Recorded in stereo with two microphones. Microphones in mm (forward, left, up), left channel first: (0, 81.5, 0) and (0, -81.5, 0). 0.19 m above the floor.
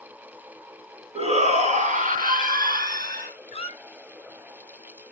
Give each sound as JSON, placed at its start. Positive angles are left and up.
{"t": 1.1, "sound": "a shout", "side_deg": -40, "distance_m": 2.5}
{"t": 3.5, "sound": "a squeak", "side_deg": 40, "distance_m": 0.9}